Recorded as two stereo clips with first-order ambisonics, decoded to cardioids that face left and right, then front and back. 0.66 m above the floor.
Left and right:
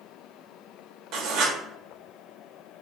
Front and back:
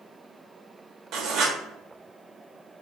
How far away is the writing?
About 0.8 m.